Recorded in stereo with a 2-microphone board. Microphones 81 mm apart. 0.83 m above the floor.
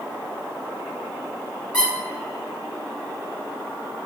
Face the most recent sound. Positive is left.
turn(degrees=20)  # may be behind; listen again after turning